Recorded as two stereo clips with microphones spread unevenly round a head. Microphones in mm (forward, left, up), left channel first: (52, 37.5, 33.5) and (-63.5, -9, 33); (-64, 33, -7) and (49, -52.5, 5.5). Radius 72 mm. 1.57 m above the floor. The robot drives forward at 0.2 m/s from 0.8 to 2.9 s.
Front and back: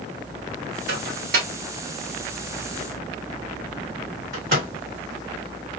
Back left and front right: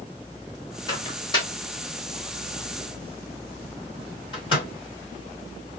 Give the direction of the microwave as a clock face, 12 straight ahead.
5 o'clock.